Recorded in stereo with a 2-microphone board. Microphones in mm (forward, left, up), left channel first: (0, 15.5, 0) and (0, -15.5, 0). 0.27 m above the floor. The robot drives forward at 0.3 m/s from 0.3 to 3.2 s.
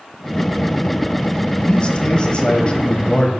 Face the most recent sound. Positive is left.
turn(degrees=30)  # may be behind; listen again after turning